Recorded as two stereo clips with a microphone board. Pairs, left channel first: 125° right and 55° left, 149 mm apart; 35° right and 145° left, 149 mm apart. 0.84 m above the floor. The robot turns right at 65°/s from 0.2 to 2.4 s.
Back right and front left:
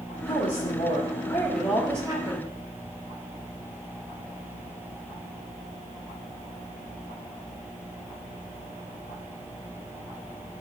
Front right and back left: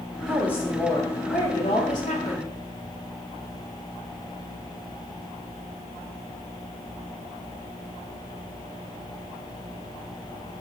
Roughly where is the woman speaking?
Behind right.